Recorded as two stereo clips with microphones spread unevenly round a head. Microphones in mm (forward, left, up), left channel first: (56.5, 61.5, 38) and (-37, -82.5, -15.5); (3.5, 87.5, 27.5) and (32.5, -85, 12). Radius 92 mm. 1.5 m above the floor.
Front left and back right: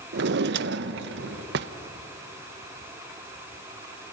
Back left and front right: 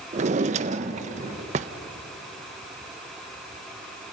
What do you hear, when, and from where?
0.1 s a drawer: 120° right, 0.7 m